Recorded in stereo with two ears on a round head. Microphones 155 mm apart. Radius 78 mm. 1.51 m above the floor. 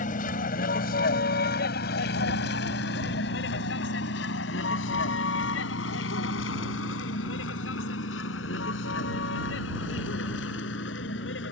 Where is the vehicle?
50° left (ahead or behind); by 11.5 s 70° left (ahead or behind).